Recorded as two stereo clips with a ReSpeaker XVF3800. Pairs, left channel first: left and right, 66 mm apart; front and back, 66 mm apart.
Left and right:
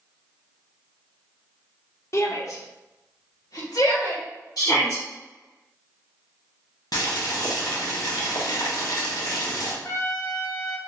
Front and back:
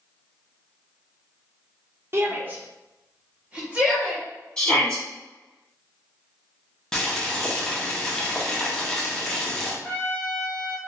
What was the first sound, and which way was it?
A shout, 130° left.